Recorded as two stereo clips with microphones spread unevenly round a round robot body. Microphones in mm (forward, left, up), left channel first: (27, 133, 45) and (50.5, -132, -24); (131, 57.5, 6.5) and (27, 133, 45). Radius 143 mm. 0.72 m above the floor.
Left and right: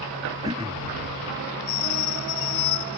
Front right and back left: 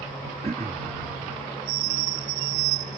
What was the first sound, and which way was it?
Throat clearing, 155° right.